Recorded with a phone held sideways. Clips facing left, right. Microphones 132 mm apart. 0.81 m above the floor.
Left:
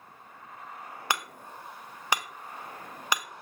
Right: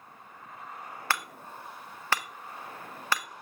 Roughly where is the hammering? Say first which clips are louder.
Left 1 dB; centre.